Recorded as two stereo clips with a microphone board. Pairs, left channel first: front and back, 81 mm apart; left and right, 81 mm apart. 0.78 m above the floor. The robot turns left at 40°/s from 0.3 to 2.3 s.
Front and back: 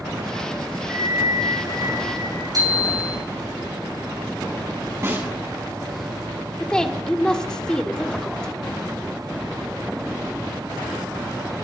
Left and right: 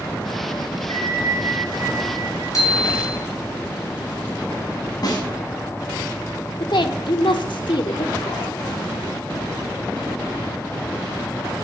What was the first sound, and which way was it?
A bell, 120° left.